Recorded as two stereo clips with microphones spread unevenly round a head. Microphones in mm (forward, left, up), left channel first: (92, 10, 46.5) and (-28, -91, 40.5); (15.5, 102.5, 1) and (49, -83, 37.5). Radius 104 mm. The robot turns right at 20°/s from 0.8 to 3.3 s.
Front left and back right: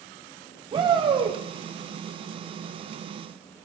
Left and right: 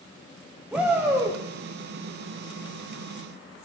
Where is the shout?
175° right, 0.7 m; by 1.4 s 165° right, 0.7 m.